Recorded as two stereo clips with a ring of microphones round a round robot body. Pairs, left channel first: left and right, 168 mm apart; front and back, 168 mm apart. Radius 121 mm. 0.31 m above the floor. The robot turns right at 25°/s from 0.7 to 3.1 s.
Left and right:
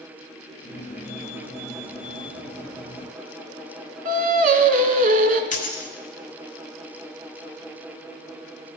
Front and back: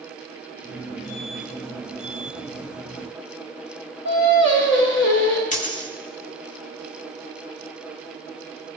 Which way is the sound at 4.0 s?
45° right.